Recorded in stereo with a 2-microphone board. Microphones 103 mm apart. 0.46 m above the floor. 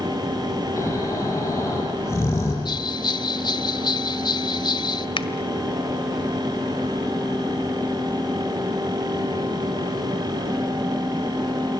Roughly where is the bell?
Left.